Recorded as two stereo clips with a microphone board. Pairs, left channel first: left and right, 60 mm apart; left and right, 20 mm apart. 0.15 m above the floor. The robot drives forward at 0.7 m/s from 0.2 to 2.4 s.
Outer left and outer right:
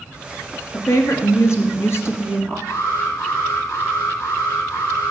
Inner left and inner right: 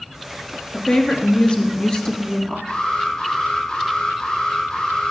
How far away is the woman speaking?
About 2.5 m.